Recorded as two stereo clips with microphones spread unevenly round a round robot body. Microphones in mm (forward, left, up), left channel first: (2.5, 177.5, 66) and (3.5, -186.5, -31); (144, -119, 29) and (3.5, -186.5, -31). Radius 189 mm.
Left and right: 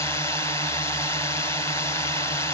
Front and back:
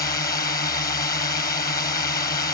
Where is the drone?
5° right.